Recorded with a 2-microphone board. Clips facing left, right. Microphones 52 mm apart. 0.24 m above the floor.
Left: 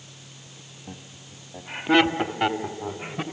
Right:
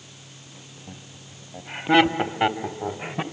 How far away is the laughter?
About 1.1 m.